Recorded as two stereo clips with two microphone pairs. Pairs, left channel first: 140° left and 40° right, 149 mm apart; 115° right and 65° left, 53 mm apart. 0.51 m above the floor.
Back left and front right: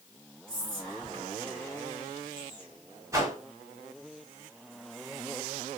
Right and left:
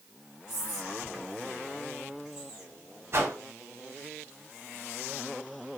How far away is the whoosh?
About 0.9 m.